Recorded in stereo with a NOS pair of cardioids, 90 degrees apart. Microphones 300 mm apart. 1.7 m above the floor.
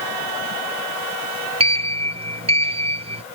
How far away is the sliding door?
About 0.7 m.